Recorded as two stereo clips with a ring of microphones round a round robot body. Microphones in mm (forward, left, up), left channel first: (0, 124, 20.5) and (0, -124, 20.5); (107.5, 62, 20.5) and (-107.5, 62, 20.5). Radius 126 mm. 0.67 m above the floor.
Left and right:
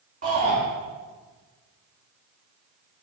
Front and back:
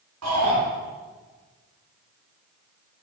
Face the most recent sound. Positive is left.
turn(degrees=-150)